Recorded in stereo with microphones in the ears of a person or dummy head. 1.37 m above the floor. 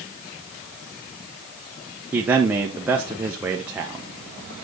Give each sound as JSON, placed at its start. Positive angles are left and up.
{"t": 2.1, "sound": "a man speaking", "side_deg": -10, "distance_m": 1.2}